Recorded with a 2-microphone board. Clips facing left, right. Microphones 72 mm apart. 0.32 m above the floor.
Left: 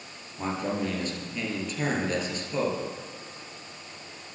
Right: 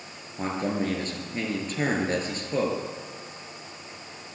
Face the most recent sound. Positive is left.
turn(degrees=-40)  # may be behind; listen again after turning